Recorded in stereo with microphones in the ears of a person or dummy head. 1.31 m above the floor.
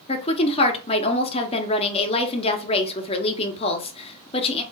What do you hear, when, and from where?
0.1 s a woman speaking: 25° left (ahead or behind), 0.8 m